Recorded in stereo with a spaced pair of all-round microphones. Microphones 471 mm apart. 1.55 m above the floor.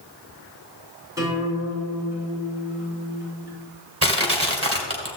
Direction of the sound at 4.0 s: 30° right (ahead or behind).